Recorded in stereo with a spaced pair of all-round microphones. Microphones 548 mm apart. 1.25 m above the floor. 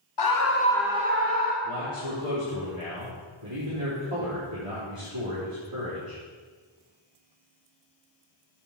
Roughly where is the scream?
Left.